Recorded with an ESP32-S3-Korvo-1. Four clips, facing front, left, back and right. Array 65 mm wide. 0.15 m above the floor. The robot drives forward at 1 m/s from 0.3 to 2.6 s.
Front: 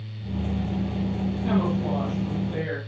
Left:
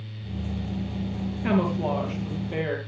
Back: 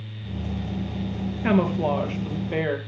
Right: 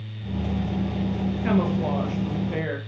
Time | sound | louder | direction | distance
1.4 | a woman speaking | even, back 4 dB | 175° right | 3 m